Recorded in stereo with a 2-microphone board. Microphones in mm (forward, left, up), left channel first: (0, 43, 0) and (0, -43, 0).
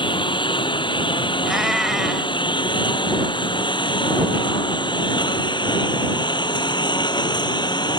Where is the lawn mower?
65° left (ahead or behind); by 8.0 s 55° left (ahead or behind).